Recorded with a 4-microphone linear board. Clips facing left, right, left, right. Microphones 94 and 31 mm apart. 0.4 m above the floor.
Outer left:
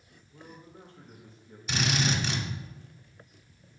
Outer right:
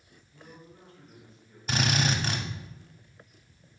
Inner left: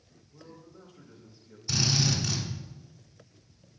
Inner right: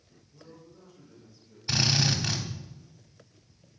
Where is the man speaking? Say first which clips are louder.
Outer left 2 dB, inner left 1 dB; 30° left (ahead or behind), 1.6 m.